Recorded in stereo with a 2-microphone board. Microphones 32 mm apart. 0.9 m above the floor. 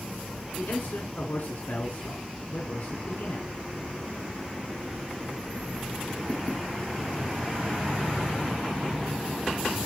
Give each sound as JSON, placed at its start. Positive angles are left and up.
{"t": 0.6, "sound": "a man speaking", "side_deg": 75, "distance_m": 2.5}